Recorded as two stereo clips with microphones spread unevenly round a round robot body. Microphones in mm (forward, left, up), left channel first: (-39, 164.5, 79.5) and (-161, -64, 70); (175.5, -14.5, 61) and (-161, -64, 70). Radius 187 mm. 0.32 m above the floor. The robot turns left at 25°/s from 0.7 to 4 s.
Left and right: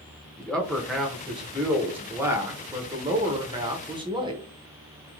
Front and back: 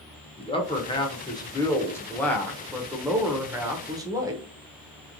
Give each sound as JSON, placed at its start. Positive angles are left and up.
{"t": 0.4, "sound": "a man speaking", "azimuth_deg": -25, "distance_m": 0.8}